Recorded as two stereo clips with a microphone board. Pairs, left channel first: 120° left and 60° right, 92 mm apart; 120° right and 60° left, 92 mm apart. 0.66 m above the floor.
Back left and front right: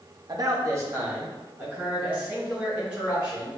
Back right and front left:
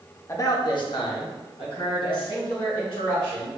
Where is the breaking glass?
No breaking glass in this recording.